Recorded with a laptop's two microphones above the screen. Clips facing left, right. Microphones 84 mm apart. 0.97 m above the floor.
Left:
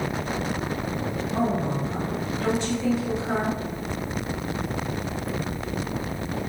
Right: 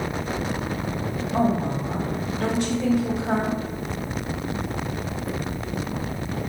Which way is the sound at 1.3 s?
55° right (ahead or behind).